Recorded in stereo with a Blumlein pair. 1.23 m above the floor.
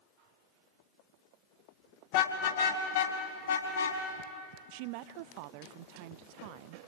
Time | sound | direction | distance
2.1 | a car horn | 50° left | 3 m
4.7 | a woman speaking | 45° right | 0.6 m